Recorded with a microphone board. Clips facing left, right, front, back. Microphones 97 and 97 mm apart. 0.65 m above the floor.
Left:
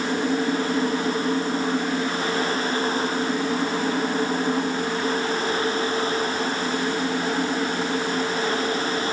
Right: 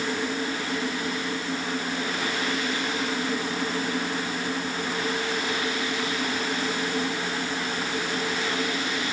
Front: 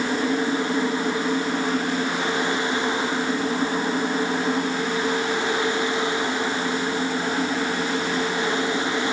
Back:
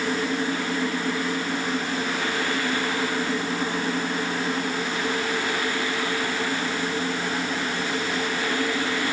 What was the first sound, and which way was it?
Only background noise.